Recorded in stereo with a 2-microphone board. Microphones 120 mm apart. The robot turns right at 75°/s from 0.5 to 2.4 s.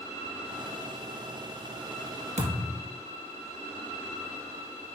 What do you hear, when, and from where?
2.4 s a thud: 75° right (ahead or behind), 2.0 m